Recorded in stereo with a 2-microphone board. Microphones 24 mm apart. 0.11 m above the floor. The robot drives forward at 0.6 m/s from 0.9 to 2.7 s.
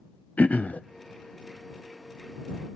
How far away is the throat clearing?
About 0.7 m.